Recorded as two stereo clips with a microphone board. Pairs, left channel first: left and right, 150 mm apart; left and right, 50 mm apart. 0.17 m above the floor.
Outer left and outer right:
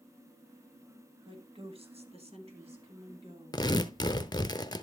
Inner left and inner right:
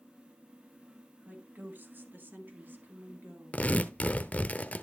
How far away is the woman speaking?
About 1.9 m.